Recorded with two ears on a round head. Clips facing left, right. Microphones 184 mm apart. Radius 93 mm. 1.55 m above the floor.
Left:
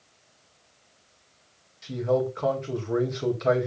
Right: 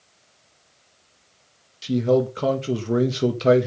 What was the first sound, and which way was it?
A man speaking, 40° right (ahead or behind).